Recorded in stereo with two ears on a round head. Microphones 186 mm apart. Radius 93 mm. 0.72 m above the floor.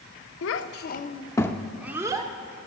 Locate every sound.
0.4 s a child speaking: 70° left (ahead or behind), 0.7 m; by 2.3 s 20° right (ahead or behind), 0.9 m